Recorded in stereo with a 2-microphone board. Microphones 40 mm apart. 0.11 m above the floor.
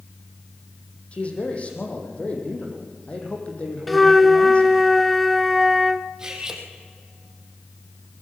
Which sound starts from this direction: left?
A man speaking, at 1.1 s.